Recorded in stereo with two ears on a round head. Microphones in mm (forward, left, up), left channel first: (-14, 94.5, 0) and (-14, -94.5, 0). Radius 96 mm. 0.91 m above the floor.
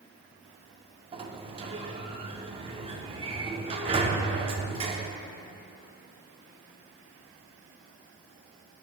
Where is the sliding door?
25° right (ahead or behind), 0.6 m.